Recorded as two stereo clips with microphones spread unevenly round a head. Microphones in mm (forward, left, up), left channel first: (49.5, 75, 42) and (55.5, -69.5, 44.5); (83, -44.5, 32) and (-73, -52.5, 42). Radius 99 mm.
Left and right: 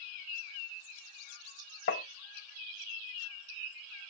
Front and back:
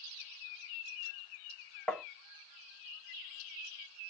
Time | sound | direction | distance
1.9 | tapping | 90° left | 0.7 m